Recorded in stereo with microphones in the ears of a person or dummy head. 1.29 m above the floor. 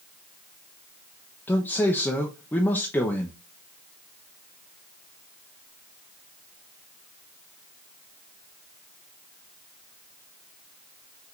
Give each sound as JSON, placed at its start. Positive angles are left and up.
{"t": 1.5, "sound": "a man speaking", "side_deg": 15, "distance_m": 0.7}